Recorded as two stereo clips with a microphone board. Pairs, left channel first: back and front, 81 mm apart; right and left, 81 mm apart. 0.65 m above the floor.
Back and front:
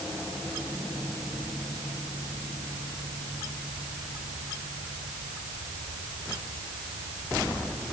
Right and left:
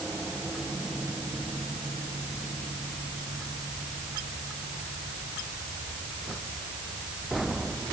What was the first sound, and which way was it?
Only background noise.